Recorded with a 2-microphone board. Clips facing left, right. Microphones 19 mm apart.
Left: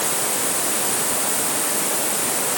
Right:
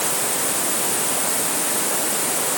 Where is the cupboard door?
I don't hear a cupboard door.